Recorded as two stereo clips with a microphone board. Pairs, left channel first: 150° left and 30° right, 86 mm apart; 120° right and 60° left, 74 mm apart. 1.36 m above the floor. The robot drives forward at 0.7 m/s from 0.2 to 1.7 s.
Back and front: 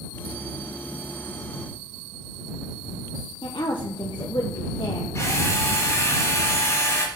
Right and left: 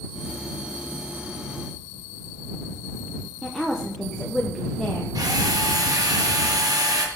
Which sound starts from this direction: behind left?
A woman speaking, at 3.4 s.